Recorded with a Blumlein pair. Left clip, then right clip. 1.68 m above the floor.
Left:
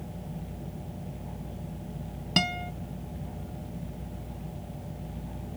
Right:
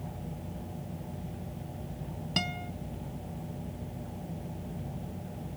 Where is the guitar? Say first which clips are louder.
Left 6 dB; 15° left.